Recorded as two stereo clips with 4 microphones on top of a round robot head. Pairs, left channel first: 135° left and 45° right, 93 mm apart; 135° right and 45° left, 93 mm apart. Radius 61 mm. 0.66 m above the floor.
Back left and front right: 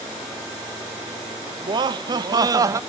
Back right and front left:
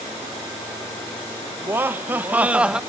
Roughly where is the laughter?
Ahead.